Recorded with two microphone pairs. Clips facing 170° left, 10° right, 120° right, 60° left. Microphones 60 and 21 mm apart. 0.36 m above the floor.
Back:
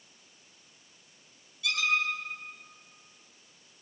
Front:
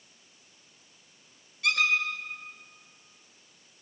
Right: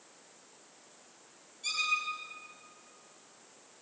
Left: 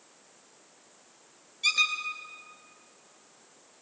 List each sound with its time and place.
1.6 s a squeak: 25° left, 2.5 m